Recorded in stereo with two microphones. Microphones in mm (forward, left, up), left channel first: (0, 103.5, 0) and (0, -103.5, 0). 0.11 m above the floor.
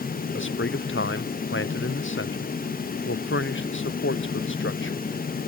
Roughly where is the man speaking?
Left.